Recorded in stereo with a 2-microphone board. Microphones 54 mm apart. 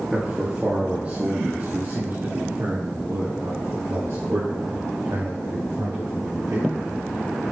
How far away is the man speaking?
About 2 m.